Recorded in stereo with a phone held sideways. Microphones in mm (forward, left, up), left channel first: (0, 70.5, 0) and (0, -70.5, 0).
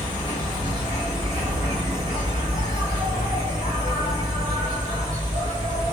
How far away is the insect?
About 1.6 m.